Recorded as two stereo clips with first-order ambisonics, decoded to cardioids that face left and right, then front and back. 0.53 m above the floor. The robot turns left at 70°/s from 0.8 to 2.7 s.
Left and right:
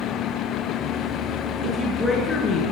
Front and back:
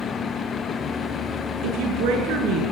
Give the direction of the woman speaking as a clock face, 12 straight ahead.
5 o'clock.